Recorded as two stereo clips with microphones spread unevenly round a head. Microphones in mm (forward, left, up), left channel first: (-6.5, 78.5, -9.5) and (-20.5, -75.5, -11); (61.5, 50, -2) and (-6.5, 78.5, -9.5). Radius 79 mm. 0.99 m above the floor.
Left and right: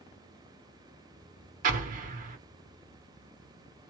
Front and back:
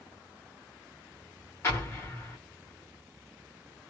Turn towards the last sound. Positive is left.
turn(degrees=-75)